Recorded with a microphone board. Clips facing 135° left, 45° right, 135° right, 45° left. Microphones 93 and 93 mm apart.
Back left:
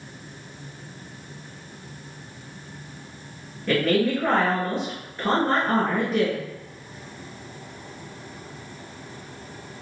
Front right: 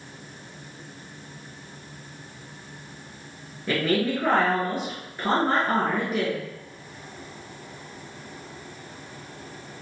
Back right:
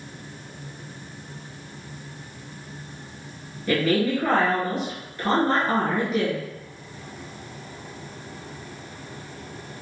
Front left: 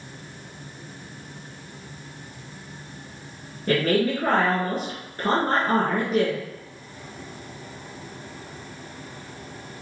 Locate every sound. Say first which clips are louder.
3.7 s a woman speaking: back left 3 dB, even; 30° left, 1.7 m